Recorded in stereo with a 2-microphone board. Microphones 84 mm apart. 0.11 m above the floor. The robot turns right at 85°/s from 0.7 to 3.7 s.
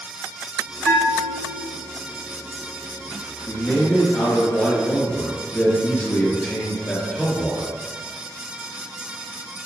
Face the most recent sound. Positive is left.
turn(degrees=20)  # may be behind; listen again after turning